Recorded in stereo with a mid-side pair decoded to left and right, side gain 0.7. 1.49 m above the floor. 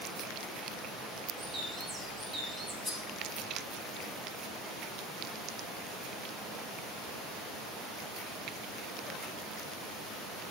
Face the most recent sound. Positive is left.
turn(degrees=10)